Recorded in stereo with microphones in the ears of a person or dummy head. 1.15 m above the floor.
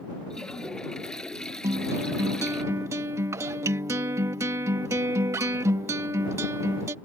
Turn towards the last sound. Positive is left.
turn(degrees=-15)  # may be behind; listen again after turning